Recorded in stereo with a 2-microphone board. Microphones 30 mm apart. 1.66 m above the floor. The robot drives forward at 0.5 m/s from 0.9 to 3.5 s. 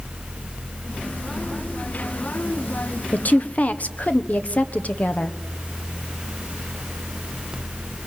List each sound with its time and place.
3.1 s a woman speaking: 60° left (ahead or behind), 1.1 m; by 5.4 s 50° left (ahead or behind), 1.2 m